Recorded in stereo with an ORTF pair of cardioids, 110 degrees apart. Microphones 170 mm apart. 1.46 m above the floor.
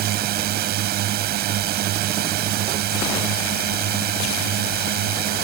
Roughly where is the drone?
Right.